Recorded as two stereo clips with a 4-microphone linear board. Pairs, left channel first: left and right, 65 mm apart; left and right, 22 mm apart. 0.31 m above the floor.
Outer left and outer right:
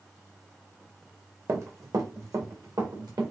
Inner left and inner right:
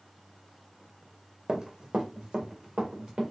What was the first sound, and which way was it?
Running footsteps, 45° right (ahead or behind).